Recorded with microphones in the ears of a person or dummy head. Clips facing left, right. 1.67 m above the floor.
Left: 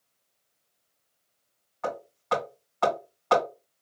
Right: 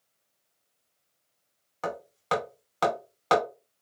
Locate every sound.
1.8 s hammering: 45° right (ahead or behind), 2 m